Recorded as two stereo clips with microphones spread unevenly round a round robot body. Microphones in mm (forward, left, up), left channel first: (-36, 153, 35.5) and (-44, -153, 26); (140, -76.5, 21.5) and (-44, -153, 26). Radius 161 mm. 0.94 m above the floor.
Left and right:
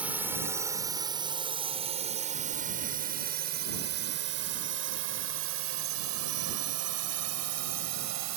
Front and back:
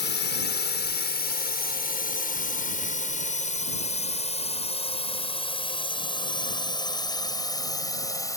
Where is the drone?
5° right; by 8.4 s 50° right.